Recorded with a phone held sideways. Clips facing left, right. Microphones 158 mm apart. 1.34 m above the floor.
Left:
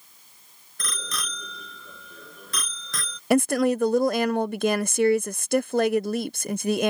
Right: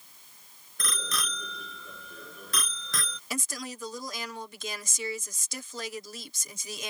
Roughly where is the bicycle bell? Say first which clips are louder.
Even; centre.